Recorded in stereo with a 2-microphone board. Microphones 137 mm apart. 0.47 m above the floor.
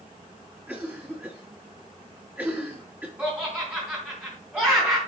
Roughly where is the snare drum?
No snare drum in this recording.